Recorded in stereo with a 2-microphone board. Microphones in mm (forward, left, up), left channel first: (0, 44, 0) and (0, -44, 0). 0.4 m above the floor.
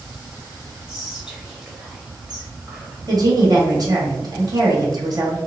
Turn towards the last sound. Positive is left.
turn(degrees=-50)  # may be behind; listen again after turning